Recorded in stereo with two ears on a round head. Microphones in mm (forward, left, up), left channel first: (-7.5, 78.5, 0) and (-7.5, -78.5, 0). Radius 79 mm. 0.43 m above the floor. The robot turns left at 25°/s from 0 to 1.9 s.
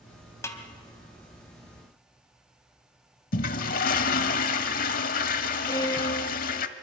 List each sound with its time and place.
0.4 s a snare drum: 15° left (ahead or behind), 1.9 m; by 0.6 s 20° left (ahead or behind), 1.9 m
3.3 s a toilet flushing: 50° left (ahead or behind), 1.0 m
5.7 s a violin: 20° left (ahead or behind), 1.7 m